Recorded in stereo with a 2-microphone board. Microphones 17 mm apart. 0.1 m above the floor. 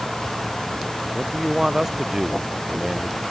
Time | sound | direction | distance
1.1 | a man speaking | 30° right (ahead or behind) | ?